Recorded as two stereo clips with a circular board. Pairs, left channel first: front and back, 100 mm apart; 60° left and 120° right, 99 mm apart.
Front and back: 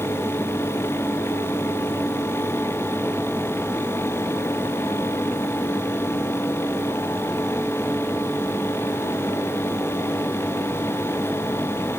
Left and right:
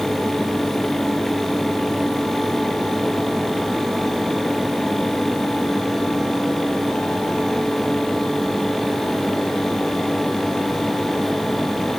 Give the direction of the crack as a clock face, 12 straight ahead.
I don't hear a crack.